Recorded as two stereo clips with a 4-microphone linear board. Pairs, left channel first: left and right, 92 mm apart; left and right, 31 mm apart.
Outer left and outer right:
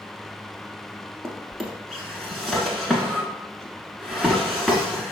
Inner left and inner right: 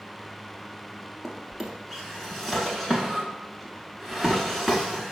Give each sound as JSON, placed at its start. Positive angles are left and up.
{"t": 1.2, "sound": "a drawer", "side_deg": 0, "distance_m": 1.1}